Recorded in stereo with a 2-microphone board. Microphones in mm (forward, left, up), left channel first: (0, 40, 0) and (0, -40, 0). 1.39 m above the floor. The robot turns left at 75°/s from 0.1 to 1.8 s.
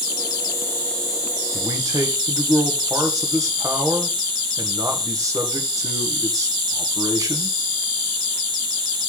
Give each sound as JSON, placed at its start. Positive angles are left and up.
{"t": 0.0, "sound": "an insect", "azimuth_deg": 70, "distance_m": 4.5}
{"t": 1.5, "sound": "a man speaking", "side_deg": -25, "distance_m": 1.4}